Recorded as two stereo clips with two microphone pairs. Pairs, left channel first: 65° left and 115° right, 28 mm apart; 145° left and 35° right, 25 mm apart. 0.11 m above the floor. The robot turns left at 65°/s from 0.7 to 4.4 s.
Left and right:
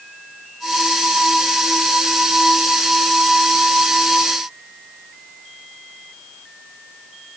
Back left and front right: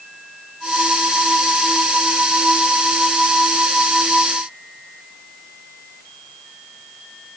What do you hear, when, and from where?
Only background noise.